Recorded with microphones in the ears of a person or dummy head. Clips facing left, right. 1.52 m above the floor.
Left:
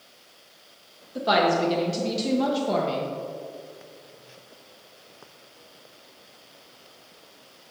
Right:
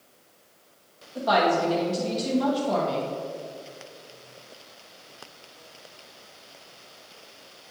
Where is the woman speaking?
35° left (ahead or behind), 1.3 m.